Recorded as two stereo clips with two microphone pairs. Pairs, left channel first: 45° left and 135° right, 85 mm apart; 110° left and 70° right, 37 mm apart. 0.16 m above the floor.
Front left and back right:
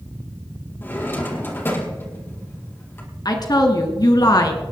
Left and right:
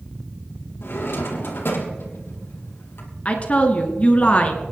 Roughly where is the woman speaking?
Ahead left.